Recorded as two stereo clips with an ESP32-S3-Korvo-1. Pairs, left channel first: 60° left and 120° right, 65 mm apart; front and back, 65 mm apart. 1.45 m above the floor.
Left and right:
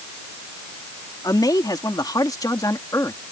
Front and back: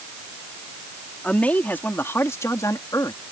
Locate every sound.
1.2 s a man speaking: 70° left; by 3.2 s 20° left